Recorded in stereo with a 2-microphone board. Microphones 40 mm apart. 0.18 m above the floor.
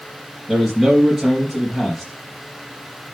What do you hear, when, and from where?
0.5 s a man speaking: 5° right (ahead or behind), 3 m